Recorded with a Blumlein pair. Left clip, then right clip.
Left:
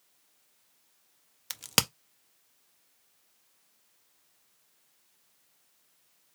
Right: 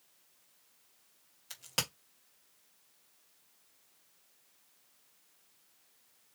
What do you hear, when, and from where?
1.5 s a crack: 35° left, 0.5 m